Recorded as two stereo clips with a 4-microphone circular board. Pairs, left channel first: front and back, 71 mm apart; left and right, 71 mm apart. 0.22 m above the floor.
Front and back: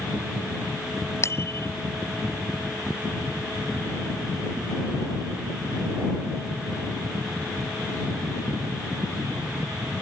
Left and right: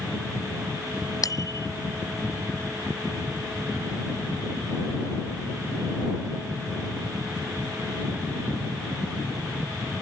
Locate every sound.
1.2 s a bicycle bell: 50° left